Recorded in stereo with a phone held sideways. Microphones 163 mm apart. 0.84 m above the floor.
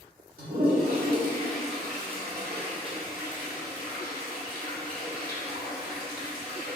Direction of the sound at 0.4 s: 80° right.